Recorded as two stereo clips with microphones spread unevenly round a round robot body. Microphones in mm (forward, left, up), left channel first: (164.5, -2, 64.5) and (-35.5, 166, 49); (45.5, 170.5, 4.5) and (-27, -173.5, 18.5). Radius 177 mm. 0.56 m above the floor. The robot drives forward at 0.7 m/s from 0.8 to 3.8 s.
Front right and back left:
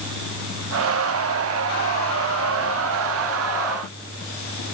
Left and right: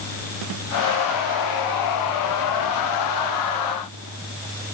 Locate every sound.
Only background noise.